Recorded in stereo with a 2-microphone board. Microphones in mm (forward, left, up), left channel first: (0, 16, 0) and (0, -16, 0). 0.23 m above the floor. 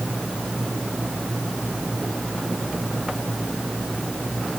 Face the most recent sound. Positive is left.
No sound to turn to.